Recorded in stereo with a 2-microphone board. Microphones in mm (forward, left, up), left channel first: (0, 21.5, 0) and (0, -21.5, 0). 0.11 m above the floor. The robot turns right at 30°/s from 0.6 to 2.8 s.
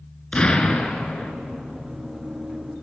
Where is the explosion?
20° left (ahead or behind), 1.7 m.